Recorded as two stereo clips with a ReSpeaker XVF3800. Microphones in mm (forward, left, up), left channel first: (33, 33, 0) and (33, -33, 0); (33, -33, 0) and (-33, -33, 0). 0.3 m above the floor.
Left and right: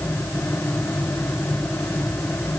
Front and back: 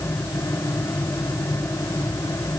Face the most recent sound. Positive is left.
No sound to turn to.